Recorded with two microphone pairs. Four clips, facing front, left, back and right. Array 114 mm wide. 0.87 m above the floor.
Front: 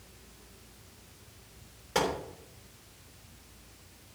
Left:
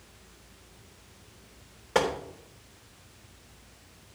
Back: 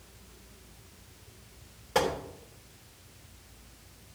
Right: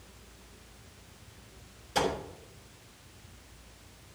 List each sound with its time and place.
1.9 s a gunshot: 95° left, 3.5 m